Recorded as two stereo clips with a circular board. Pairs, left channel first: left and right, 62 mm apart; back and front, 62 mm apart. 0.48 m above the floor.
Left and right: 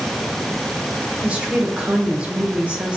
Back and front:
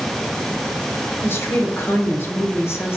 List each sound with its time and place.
1.2 s a woman speaking: 155° right, 1.1 m